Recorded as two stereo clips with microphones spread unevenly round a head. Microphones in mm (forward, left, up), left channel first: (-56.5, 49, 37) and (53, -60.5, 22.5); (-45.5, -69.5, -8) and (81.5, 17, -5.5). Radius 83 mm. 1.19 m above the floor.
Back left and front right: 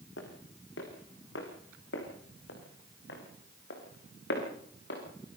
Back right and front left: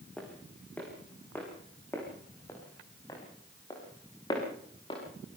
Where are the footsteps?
130° left, 5 m; by 5.0 s 150° left, 7 m.